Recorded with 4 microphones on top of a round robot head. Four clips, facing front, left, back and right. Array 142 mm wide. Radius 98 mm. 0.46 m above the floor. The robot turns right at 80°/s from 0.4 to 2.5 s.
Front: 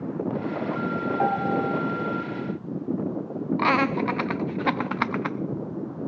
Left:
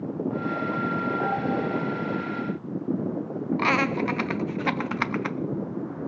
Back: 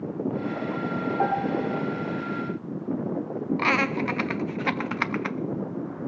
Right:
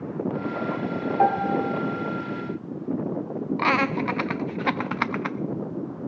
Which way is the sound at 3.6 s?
30° right.